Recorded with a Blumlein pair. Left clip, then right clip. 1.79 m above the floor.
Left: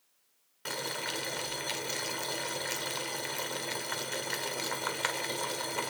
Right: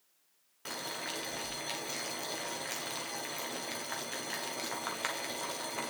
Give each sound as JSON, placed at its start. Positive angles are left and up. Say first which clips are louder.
{"t": 0.7, "sound": "boiling", "louder": "left 4 dB", "azimuth_deg": 10, "distance_m": 1.3}